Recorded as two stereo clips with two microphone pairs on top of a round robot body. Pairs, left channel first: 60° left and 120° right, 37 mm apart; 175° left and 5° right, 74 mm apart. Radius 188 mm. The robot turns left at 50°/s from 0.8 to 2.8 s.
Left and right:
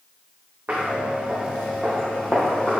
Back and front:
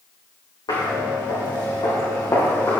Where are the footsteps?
170° right, 4 m; by 2.8 s 105° left, 3 m.